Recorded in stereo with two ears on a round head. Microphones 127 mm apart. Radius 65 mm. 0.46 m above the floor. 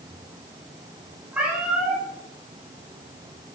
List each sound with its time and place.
1.3 s a cat meowing: 10° right (ahead or behind), 2.5 m